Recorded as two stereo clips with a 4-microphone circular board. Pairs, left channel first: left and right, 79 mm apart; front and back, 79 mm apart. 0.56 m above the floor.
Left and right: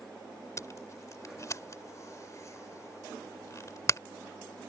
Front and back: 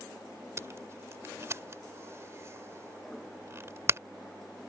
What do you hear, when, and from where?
0.6 s tape being pulled: 130° left